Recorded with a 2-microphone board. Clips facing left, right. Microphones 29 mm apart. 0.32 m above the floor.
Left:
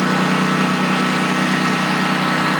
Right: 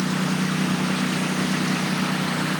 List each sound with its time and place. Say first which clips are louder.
0.0 s a lawn mower: left 8 dB; 85° left; by 2.6 s 80° left